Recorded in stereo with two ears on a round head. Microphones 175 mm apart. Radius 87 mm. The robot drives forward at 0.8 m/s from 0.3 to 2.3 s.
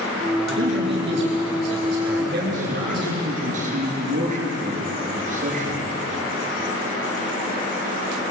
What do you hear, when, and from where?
0.5 s a man speaking: 60° right (ahead or behind), 5 m; by 3.2 s 50° right (ahead or behind), 6 m
2.2 s a man speaking: 45° right (ahead or behind), 7 m; by 5.9 s 40° right (ahead or behind), 7 m